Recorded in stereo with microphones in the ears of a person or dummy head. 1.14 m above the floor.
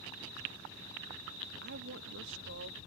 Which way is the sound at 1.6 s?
60° right (ahead or behind).